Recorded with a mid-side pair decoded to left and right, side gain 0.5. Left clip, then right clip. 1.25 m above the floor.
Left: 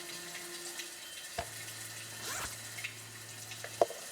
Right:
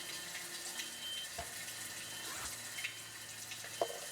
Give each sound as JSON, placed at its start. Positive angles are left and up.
{"t": 0.0, "sound": "running water", "azimuth_deg": 10, "distance_m": 3.5}
{"t": 1.4, "sound": "a zipper", "azimuth_deg": 50, "distance_m": 1.6}